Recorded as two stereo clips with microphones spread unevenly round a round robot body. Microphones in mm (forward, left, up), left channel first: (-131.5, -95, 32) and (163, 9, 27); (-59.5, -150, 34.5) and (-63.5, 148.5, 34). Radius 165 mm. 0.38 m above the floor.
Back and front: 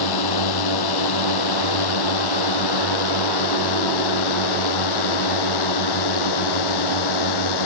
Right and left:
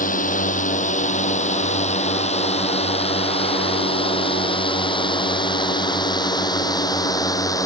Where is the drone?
155° right; by 7.7 s 170° right.